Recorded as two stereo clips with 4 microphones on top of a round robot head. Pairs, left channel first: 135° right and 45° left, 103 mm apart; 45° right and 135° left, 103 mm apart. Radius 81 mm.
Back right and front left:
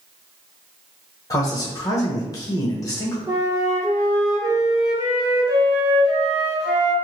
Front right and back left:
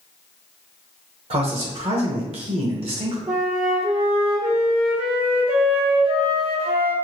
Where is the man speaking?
165° left, 1.1 m.